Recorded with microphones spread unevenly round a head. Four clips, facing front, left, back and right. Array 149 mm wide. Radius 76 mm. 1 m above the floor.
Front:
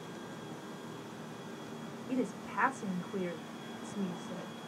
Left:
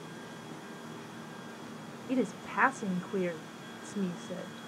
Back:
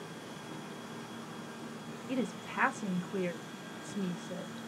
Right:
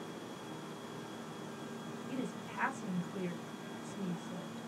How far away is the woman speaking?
About 1.1 m.